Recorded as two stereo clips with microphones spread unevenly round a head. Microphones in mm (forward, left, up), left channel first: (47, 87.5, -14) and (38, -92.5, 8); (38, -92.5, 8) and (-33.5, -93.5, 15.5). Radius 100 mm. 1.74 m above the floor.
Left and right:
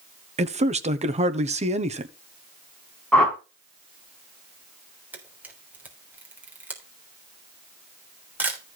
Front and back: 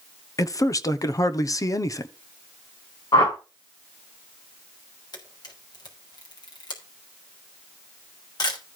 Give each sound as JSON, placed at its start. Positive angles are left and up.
{"t": 0.4, "sound": "a man speaking", "azimuth_deg": -40, "distance_m": 1.3}
{"t": 3.1, "sound": "a whoosh", "azimuth_deg": 0, "distance_m": 4.0}
{"t": 5.1, "sound": "a camera shutter", "azimuth_deg": -15, "distance_m": 3.5}